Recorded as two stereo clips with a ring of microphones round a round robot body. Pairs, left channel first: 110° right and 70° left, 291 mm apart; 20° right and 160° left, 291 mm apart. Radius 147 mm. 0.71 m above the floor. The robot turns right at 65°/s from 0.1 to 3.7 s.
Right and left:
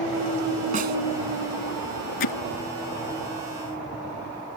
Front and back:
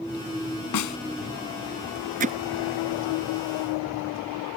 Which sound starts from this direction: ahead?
A snare drum, at 0.7 s.